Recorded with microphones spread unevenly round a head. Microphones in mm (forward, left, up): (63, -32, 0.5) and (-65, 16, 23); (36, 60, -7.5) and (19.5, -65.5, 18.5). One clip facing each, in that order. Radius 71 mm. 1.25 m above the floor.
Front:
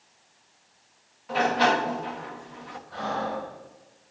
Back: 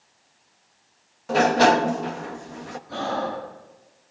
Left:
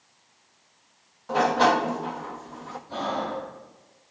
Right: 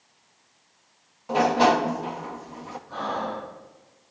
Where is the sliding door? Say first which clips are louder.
Back 6 dB, right 1 dB; 170° right, 0.9 m.